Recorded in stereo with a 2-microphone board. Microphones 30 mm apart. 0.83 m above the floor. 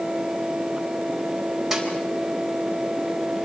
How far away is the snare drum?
About 4 m.